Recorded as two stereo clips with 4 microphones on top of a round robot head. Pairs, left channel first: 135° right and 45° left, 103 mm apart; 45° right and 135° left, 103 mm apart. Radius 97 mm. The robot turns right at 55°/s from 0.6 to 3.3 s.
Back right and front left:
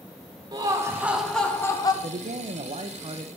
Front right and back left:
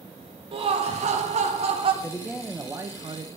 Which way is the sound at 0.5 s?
100° left.